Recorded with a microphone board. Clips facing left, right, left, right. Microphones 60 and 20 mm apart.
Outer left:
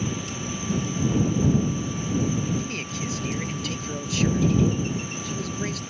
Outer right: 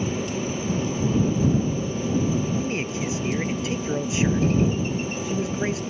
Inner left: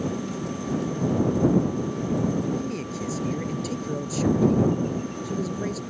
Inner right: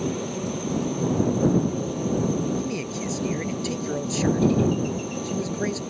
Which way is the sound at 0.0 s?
40° right (ahead or behind).